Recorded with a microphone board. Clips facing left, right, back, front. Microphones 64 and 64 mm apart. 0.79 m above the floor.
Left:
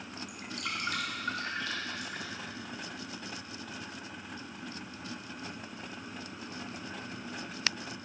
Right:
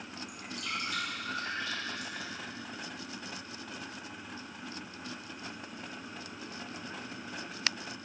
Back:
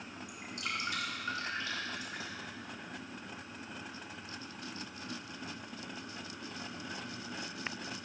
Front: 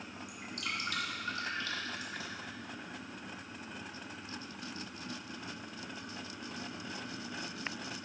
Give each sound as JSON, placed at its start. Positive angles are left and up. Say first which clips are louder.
{"t": 0.3, "sound": "dripping", "louder": "even, back 1 dB", "azimuth_deg": 120, "distance_m": 1.5}